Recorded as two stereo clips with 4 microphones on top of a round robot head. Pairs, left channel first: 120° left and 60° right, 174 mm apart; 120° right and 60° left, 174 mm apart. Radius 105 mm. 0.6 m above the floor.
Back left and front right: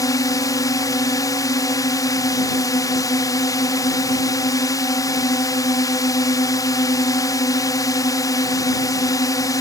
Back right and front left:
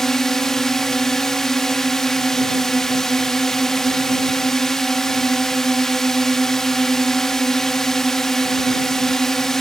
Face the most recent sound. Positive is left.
turn(degrees=155)